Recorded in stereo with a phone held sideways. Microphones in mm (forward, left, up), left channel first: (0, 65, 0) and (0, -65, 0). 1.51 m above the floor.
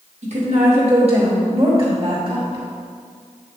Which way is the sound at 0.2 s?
60° right (ahead or behind).